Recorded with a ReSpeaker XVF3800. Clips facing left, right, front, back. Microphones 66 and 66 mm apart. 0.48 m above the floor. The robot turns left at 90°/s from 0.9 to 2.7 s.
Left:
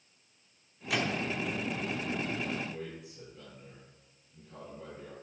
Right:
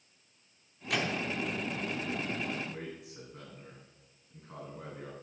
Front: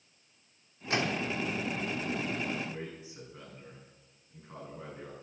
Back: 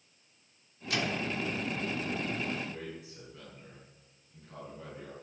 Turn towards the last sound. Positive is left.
turn(degrees=-60)